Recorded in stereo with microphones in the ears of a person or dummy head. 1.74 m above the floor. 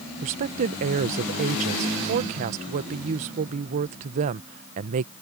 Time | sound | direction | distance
0.2 | a woman speaking | 40° right (ahead or behind) | ?